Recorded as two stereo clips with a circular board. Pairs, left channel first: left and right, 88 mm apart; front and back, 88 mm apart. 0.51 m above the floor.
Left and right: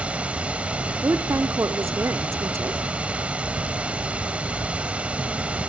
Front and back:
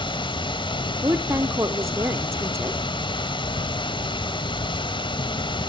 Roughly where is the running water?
Ahead.